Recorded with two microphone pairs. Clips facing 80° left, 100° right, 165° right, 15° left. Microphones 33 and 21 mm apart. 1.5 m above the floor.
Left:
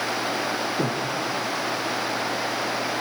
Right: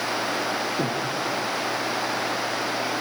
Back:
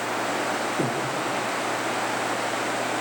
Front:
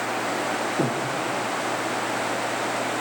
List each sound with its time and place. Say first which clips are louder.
0.8 s breathing: even, front 1 dB; 20° right, 1.7 m